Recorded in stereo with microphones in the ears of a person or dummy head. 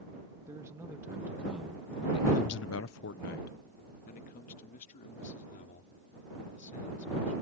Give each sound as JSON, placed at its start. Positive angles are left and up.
{"t": 0.5, "sound": "a man speaking", "side_deg": -15}